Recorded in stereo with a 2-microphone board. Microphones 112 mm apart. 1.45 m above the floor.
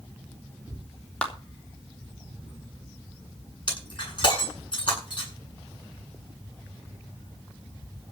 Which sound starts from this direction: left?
Breaking glass, at 3.7 s.